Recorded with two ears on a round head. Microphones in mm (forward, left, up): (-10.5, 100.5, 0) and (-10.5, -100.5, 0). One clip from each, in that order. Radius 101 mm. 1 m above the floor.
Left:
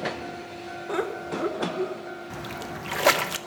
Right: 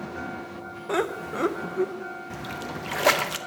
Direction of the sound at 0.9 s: 15° right (ahead or behind).